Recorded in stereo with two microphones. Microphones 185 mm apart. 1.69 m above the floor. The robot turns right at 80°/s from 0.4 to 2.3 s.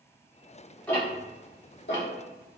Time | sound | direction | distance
0.9 | ticking | 5° left (ahead or behind) | 1.4 m